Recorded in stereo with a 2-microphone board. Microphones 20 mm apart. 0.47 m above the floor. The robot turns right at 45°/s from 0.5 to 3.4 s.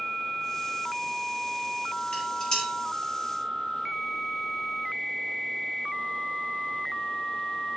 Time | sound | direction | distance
2.1 | dishes clattering | 70° left (ahead or behind) | 6.5 m